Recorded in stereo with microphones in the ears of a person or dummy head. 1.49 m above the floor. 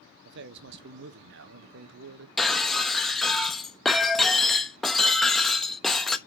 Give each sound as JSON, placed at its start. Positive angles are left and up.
{"t": 0.2, "sound": "a man speaking", "side_deg": -60, "distance_m": 1.1}
{"t": 2.4, "sound": "breaking glass", "side_deg": 5, "distance_m": 1.1}